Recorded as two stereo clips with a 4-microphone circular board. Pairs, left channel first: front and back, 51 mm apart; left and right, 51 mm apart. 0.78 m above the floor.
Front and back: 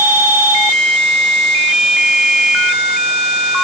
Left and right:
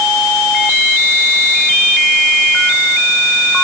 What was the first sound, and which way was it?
Only background noise.